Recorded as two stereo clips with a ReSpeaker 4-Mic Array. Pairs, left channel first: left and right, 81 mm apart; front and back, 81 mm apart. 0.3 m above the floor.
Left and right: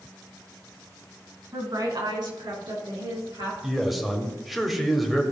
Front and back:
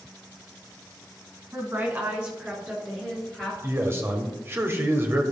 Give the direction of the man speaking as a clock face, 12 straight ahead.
6 o'clock.